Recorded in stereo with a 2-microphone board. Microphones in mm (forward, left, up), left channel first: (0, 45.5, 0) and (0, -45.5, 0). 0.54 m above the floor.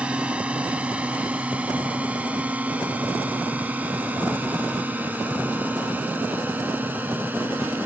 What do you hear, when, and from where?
0.0 s a drone: 10° right (ahead or behind); by 7.9 s 20° right (ahead or behind)